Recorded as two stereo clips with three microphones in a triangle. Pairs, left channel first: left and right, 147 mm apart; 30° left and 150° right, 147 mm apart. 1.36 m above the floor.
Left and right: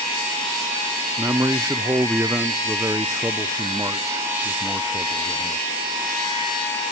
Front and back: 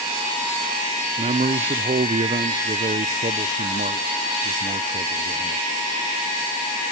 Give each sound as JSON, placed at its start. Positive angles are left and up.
{"t": 1.2, "sound": "a man speaking", "azimuth_deg": -160, "distance_m": 0.5}